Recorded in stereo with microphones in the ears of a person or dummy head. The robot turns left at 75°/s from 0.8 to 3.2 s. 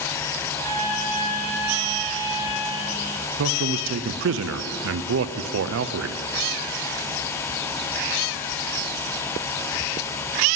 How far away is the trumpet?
About 3.5 m.